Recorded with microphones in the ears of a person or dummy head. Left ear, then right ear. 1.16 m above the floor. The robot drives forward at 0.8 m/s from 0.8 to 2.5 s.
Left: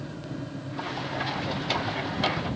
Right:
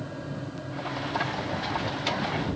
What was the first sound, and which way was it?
Only background noise.